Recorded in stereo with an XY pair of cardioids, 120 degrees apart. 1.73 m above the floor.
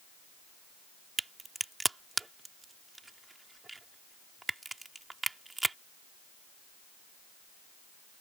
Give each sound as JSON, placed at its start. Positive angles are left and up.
{"t": 1.2, "sound": "a crack", "azimuth_deg": -15}